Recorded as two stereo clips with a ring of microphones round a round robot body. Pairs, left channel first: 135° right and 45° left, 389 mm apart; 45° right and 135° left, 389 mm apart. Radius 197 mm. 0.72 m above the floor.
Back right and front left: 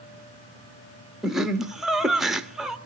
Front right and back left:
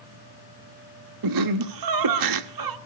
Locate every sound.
1.2 s laughter: 135° left, 1.4 m